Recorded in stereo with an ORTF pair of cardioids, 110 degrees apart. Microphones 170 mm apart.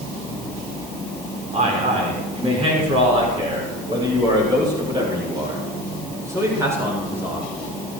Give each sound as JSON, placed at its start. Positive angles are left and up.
{"t": 1.5, "sound": "a man speaking", "azimuth_deg": -40, "distance_m": 6.0}